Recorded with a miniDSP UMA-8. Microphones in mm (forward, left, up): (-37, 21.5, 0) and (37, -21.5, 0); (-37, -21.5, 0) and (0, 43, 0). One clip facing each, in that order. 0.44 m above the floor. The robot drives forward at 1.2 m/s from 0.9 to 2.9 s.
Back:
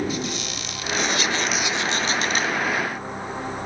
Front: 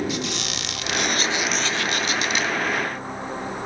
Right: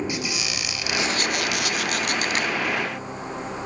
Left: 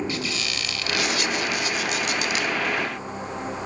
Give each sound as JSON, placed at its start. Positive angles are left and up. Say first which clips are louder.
{"t": 0.1, "sound": "a squeak", "louder": "even, even", "azimuth_deg": -45, "distance_m": 0.7}